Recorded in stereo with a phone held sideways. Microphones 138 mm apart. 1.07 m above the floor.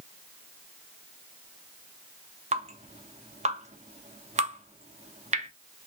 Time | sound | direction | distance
2.5 | dripping | 55° right (ahead or behind) | 0.7 m